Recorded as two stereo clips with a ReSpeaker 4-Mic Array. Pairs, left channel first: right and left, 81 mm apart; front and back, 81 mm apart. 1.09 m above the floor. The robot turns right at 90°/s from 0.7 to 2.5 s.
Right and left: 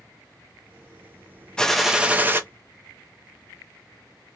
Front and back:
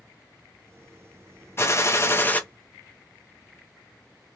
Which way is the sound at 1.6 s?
20° right.